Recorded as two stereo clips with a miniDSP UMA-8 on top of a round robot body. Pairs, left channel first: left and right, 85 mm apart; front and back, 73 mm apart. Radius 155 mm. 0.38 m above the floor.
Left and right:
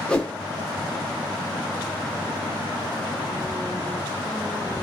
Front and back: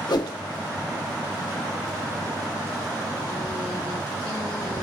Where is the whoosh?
10° left, 1.0 m.